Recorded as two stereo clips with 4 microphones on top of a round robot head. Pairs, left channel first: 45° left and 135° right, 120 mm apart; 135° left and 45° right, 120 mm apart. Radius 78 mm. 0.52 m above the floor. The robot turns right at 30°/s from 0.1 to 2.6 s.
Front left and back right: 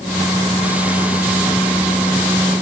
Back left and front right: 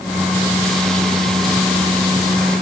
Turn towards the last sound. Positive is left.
No sound to turn to.